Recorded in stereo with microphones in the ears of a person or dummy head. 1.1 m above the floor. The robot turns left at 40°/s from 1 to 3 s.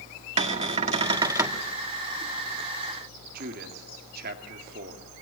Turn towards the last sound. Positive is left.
turn(degrees=-55)  # may be behind; listen again after turning